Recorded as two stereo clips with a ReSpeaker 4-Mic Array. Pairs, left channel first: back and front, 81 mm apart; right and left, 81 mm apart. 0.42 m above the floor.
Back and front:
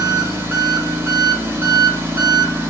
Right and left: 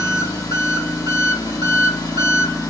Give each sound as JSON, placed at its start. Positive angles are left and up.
{"t": 0.0, "sound": "an engine running", "azimuth_deg": -55, "distance_m": 1.0}